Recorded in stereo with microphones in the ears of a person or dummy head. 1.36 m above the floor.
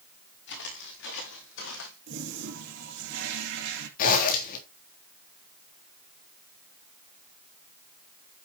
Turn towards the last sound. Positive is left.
turn(degrees=50)  # may be behind; listen again after turning